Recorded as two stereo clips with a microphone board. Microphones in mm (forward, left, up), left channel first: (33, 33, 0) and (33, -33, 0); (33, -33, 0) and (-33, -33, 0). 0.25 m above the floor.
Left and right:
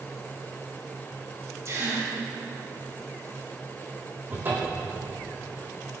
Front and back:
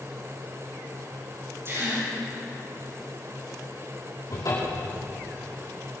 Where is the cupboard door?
30° right, 6.5 m.